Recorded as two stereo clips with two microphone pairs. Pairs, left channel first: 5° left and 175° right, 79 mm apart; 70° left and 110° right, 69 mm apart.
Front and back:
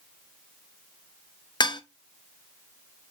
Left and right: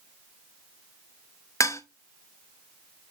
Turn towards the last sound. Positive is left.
turn(degrees=25)